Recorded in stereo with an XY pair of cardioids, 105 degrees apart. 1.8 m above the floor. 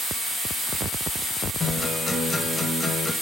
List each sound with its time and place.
1.6 s a guitar: 30° left, 1.8 m